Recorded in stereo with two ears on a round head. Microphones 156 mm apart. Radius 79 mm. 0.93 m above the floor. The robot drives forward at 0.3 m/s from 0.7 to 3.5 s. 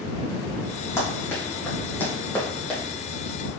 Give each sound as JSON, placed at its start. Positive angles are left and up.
{"t": 1.0, "sound": "running footsteps", "side_deg": 15, "distance_m": 1.9}